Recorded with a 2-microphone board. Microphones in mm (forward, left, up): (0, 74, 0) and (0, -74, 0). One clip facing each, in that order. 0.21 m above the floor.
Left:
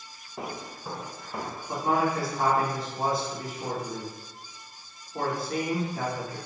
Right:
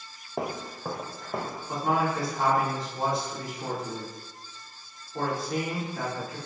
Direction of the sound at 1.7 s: Centre (ahead or behind).